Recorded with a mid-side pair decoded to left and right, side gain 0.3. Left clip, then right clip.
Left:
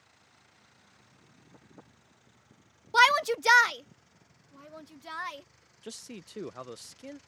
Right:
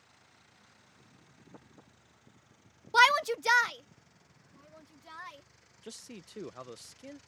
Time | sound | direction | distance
2.9 | a shout | straight ahead | ?
5.8 | a man speaking | 35° left | ?